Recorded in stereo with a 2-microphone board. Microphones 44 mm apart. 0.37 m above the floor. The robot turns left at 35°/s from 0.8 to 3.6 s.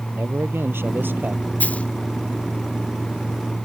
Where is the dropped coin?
40° left (ahead or behind); by 1.9 s 30° left (ahead or behind).